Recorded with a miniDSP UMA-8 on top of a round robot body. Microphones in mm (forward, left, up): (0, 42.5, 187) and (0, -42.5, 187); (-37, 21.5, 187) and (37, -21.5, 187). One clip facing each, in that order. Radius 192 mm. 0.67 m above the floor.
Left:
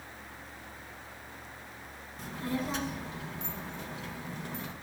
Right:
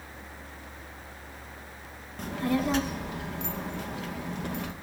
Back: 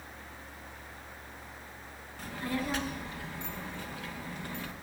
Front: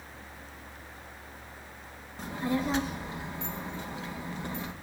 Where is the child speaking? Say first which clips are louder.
Right 7 dB, front 4 dB; 95° right, 1.2 m.